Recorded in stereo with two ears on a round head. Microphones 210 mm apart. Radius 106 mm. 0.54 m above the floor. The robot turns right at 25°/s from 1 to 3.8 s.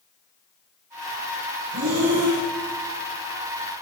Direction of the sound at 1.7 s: 80° right.